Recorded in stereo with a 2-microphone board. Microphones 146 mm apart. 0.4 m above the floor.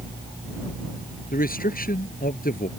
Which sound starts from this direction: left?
A man speaking, at 1.3 s.